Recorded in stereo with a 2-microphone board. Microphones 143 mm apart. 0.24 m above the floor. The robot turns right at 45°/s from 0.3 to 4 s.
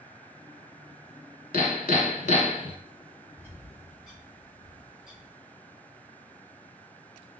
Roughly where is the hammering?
Left.